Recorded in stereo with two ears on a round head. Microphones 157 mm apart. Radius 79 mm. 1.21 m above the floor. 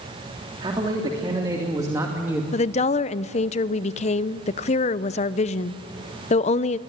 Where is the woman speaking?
40° left (ahead or behind), 0.6 m.